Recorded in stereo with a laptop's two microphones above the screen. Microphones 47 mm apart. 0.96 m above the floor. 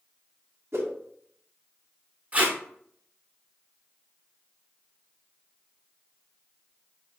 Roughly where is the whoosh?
Right.